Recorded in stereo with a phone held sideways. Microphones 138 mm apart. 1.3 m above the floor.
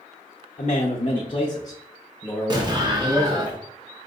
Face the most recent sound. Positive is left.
turn(degrees=-30)  # may be behind; listen again after turning